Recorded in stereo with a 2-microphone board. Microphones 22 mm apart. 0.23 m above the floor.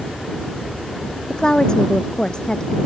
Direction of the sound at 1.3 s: 35° left (ahead or behind).